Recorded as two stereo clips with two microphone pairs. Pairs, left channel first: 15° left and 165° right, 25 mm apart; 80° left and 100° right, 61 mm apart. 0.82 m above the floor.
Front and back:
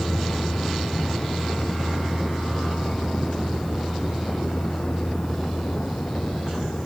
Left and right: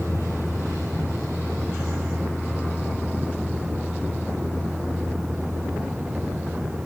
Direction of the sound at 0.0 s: 5° right.